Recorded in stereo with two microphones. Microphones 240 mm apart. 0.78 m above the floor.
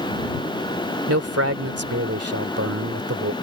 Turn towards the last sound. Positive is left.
turn(degrees=-80)